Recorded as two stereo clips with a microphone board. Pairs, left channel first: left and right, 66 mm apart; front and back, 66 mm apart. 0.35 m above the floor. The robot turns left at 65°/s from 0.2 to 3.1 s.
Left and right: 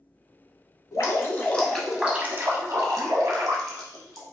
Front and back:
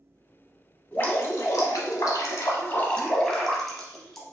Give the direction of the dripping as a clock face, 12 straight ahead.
10 o'clock.